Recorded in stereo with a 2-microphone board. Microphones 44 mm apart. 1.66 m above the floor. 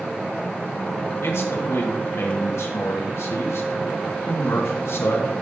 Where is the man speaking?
80° left, 2.5 m.